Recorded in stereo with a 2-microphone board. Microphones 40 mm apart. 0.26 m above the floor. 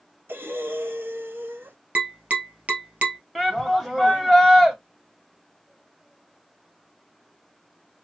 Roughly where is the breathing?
Right.